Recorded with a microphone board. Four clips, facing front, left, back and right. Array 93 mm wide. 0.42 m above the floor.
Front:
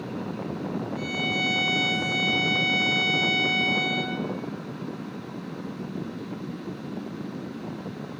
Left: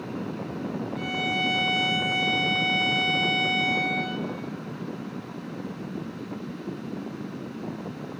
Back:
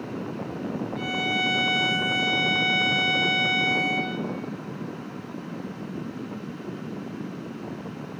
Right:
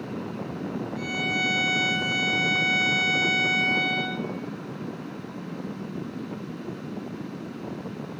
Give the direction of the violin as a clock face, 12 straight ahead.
7 o'clock.